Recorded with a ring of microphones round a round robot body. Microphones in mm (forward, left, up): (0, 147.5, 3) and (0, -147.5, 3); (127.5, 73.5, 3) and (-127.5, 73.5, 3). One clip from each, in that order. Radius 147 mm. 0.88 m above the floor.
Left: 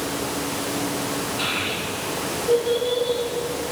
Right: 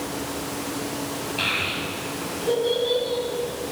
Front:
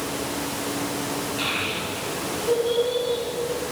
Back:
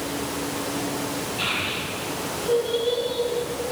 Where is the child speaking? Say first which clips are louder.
Right 3 dB, back 1 dB; 90° right, 5 m.